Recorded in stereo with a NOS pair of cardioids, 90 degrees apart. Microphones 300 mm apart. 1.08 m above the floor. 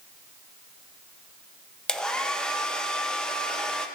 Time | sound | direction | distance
1.9 | a hair dryer | straight ahead | 0.5 m